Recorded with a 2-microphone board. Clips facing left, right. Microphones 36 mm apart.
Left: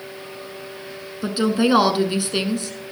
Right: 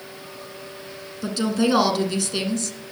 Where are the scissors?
I don't hear scissors.